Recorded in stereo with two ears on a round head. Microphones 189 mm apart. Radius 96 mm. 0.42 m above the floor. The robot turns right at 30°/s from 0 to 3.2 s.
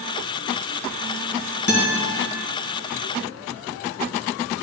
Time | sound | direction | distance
1.7 | a guitar | 60° left (ahead or behind) | 1.7 m